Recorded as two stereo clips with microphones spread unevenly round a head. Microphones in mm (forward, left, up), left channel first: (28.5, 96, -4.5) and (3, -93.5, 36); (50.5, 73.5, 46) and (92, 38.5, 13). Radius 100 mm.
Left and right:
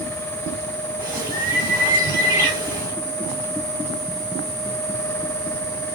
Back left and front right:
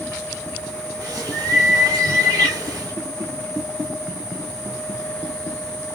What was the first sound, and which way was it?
A bird, 35° right.